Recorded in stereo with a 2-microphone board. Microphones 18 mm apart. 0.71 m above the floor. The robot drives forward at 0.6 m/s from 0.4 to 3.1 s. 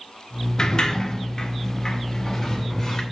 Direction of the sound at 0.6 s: 40° left (ahead or behind).